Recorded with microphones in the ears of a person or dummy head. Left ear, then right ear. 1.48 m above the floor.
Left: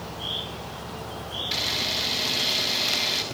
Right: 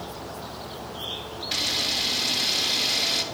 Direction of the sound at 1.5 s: Centre (ahead or behind).